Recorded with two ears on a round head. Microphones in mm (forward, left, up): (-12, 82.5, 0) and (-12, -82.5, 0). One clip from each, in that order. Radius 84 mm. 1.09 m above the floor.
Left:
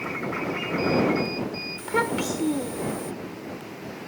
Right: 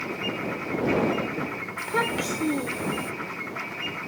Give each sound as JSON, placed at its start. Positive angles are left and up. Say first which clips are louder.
{"t": 1.8, "sound": "a child speaking", "louder": "left 1 dB", "side_deg": -5}